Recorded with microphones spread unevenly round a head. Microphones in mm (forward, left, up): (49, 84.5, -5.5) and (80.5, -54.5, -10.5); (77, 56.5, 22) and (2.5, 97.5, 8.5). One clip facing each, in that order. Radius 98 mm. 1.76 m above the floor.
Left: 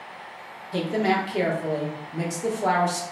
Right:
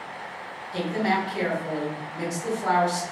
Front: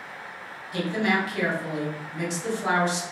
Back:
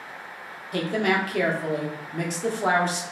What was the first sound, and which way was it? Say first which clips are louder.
A woman speaking: left 2 dB, back 1 dB; 115° left.